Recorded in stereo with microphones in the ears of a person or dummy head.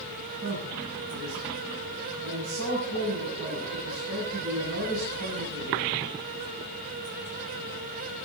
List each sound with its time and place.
0.4 s a man speaking: 70° right (ahead or behind), 9 m